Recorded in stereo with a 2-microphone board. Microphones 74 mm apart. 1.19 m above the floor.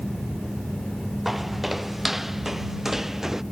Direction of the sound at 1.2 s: 5° right (ahead or behind).